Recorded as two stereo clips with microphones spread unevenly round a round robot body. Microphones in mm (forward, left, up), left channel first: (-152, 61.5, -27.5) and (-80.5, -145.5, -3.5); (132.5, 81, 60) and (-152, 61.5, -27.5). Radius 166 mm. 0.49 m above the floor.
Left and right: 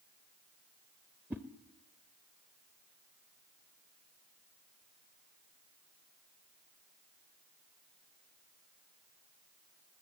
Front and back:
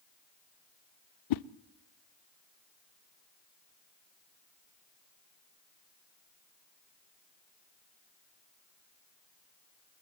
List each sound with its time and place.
1.3 s a whoosh: 15° left, 0.6 m